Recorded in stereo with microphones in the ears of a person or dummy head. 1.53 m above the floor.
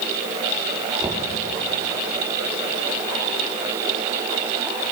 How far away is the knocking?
About 2.5 m.